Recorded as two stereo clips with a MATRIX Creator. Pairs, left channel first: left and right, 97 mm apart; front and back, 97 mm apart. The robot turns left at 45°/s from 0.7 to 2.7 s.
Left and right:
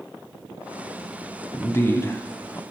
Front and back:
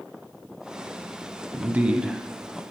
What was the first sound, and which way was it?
A man speaking, 130° left.